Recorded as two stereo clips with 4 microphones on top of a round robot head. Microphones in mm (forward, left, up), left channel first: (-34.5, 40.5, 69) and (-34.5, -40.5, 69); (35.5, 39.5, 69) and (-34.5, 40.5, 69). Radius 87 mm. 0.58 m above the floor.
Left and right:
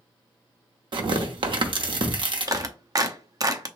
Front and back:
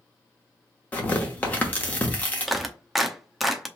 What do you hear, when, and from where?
0.9 s tearing paper: 70° right, 1.0 m
2.5 s a clap: 95° right, 0.7 m